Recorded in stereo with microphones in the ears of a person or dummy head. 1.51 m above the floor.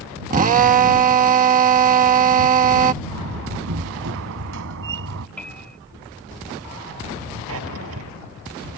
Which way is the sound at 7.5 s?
80° right.